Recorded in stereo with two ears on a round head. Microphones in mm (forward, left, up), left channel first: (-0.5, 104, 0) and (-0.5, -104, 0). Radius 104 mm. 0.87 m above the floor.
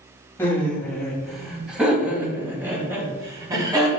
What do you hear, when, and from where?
0.4 s laughter: 10° left (ahead or behind), 4.5 m; by 4.0 s 20° right (ahead or behind), 6.5 m